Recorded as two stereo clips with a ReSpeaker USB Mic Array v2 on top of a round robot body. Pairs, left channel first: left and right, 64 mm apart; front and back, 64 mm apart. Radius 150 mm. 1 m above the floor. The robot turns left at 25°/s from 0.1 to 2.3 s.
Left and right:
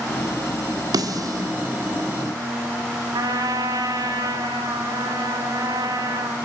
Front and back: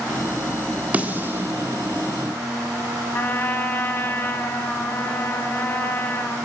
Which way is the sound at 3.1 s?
60° right.